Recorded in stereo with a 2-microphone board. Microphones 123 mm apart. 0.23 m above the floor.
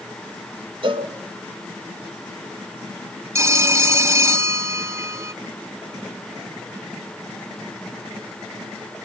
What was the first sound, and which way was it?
A cowbell, 40° right (ahead or behind).